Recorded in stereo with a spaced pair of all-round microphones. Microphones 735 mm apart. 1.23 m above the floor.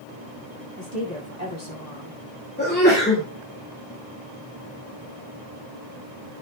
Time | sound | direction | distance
0.8 | a woman speaking | 65° right (ahead or behind) | 7.5 m
2.6 | a sneeze | 15° left (ahead or behind) | 2.5 m